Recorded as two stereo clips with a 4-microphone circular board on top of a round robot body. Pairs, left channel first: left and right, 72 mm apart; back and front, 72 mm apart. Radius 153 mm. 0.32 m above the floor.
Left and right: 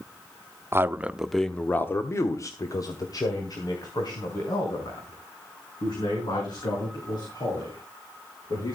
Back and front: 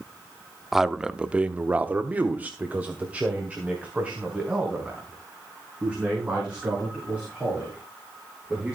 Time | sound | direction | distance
0.7 | a man speaking | 85° right | 1.1 m